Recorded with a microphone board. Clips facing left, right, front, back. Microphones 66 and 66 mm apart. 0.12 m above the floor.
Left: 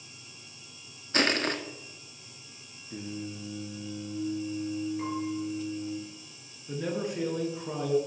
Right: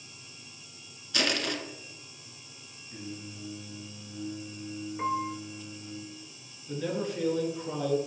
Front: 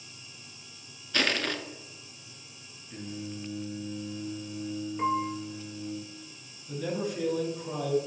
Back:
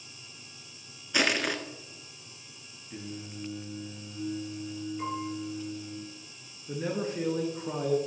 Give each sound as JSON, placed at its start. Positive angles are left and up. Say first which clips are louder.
{"t": 1.1, "sound": "crushing", "louder": "left 3 dB, back 1 dB", "azimuth_deg": 110, "distance_m": 0.5}
{"t": 2.9, "sound": "singing", "louder": "left 4 dB, front 2 dB", "azimuth_deg": 100, "distance_m": 1.2}
{"t": 5.0, "sound": "a piano", "louder": "right 2 dB, front 8 dB", "azimuth_deg": -45, "distance_m": 1.0}
{"t": 6.7, "sound": "a man speaking", "louder": "even, even", "azimuth_deg": 155, "distance_m": 1.3}